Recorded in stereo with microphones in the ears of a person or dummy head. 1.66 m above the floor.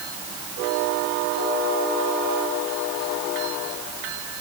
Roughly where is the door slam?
I don't hear a door slam.